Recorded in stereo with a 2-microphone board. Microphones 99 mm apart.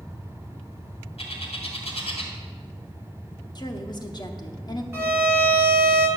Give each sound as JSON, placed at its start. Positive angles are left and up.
{"t": 1.2, "sound": "a bird", "side_deg": 80, "distance_m": 2.0}
{"t": 3.5, "sound": "a woman speaking", "side_deg": 45, "distance_m": 0.9}
{"t": 4.9, "sound": "a violin", "side_deg": -25, "distance_m": 1.6}